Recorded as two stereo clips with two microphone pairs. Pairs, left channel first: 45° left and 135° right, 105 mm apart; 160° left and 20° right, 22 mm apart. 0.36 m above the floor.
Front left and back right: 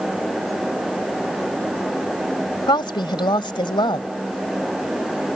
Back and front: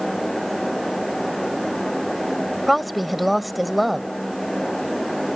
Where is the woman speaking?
65° left.